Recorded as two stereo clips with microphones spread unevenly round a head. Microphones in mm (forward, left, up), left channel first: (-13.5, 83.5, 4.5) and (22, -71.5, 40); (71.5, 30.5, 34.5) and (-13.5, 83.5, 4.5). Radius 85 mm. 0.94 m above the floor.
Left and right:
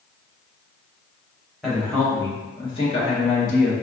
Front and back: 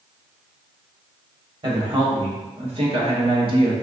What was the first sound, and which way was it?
A woman speaking, 170° right.